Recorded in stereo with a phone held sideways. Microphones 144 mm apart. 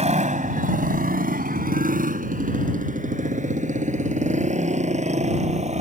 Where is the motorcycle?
50° right (ahead or behind).